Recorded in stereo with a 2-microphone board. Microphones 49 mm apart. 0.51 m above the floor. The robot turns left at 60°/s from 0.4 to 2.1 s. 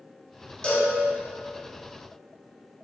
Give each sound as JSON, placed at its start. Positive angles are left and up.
{"t": 0.6, "sound": "a cowbell", "side_deg": 15, "distance_m": 1.0}